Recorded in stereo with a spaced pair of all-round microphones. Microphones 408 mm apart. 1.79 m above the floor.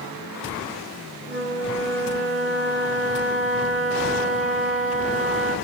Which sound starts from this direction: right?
A flute, at 1.3 s.